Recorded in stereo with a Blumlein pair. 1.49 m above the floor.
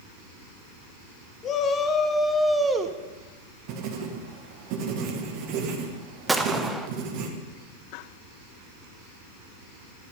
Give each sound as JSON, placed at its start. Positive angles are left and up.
{"t": 1.4, "sound": "a shout", "azimuth_deg": 30, "distance_m": 1.4}
{"t": 3.7, "sound": "writing", "azimuth_deg": -40, "distance_m": 1.5}
{"t": 6.3, "sound": "a gunshot", "azimuth_deg": -5, "distance_m": 0.8}